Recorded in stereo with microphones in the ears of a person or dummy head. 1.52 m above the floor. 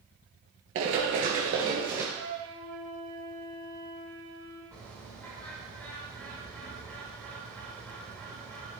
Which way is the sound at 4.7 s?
5° left (ahead or behind).